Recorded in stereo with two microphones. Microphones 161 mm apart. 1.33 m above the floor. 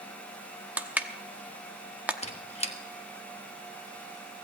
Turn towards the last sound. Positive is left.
turn(degrees=40)  # may be behind; listen again after turning